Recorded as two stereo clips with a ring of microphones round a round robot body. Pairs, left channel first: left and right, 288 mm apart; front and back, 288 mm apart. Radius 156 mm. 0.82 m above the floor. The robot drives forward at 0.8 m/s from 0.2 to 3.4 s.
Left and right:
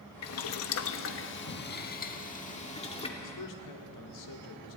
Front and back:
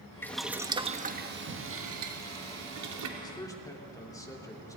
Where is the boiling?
80° left, 1.1 m; by 3.1 s 160° left, 2.5 m.